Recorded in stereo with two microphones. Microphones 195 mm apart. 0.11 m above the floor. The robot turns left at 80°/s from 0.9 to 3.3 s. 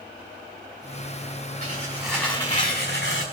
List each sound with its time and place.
1.6 s tearing paper: 140° right, 5.5 m; by 3.2 s 90° left, 5.5 m